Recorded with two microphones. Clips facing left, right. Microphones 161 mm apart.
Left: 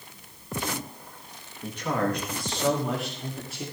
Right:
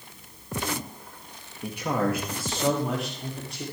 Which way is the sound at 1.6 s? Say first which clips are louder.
Right 1 dB; 15° right (ahead or behind).